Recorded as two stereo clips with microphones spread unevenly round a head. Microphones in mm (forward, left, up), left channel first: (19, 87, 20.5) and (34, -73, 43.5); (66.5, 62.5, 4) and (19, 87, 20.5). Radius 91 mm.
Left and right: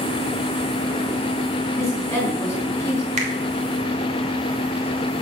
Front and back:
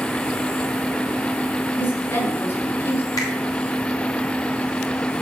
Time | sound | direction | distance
1.7 | a woman speaking | 15° left | 4 m
3.2 | a finger snap | 40° right | 2 m